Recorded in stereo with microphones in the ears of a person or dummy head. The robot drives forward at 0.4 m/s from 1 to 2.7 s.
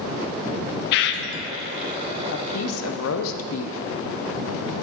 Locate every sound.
0.9 s a bird: 65° left (ahead or behind), 0.5 m
2.3 s a woman speaking: 75° left (ahead or behind), 0.8 m; by 3.8 s 90° left, 0.7 m